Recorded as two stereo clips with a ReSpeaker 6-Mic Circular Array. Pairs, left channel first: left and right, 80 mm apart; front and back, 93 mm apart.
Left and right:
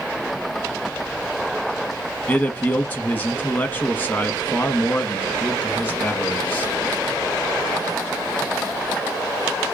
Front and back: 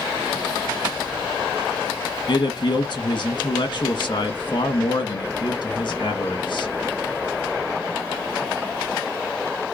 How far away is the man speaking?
About 1.1 m.